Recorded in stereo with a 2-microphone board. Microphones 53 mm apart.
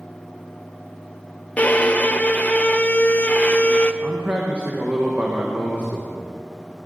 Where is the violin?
25° left (ahead or behind), 0.6 m.